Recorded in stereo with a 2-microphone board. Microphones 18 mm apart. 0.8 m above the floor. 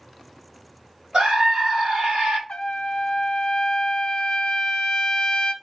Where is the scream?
65° right (ahead or behind), 3 m.